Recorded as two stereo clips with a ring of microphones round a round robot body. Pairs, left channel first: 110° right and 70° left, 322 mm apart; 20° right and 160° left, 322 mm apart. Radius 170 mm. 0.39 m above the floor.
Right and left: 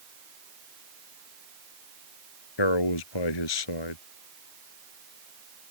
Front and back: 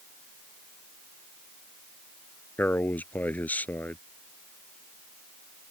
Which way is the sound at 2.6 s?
110° right.